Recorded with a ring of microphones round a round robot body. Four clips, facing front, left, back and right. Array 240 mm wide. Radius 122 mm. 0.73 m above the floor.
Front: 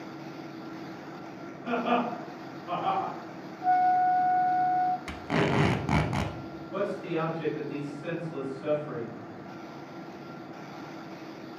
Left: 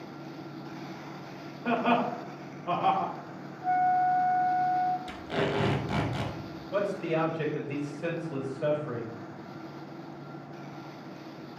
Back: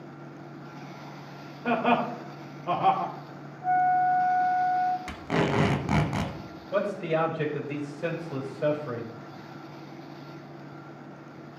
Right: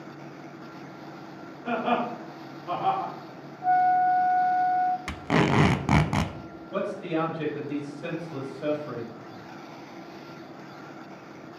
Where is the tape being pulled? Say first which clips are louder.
Right 6 dB, back 1 dB; 90° right, 1.0 m.